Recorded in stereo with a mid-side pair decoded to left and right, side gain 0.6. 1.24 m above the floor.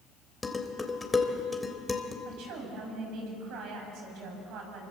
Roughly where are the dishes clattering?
Ahead.